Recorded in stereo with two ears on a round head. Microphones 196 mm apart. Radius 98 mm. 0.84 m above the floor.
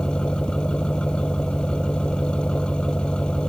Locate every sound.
0.0 s an engine running: 5° left (ahead or behind)